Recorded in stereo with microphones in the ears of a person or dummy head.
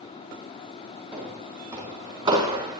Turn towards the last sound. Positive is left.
turn(degrees=-25)  # may be behind; listen again after turning